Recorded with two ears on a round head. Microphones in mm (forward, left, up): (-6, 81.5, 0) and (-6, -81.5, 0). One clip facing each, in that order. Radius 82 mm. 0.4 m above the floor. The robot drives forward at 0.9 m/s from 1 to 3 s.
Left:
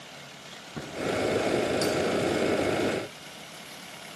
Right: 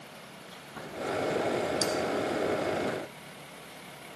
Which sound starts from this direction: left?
Chewing, at 0.5 s.